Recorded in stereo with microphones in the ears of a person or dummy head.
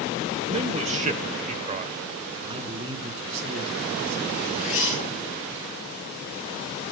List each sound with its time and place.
0.5 s a man speaking: 30° right (ahead or behind), 0.9 m
2.4 s a man speaking: 35° right (ahead or behind), 3.5 m
4.3 s a zipper: 40° left (ahead or behind), 8 m